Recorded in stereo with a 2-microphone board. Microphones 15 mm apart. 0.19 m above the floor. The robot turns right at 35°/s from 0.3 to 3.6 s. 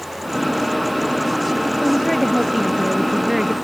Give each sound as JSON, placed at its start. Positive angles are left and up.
{"t": 1.8, "sound": "a woman speaking", "azimuth_deg": 165}